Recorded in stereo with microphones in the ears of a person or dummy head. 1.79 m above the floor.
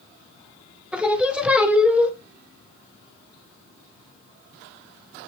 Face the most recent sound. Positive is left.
turn(degrees=0)  # may be behind; listen again after turning